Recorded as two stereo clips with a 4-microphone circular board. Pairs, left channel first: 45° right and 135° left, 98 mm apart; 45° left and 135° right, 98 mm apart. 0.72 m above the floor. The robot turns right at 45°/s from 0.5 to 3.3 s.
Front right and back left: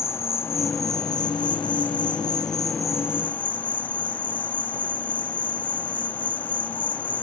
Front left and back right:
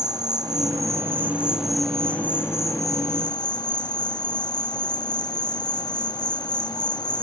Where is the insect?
100° right; by 7.2 s 25° left.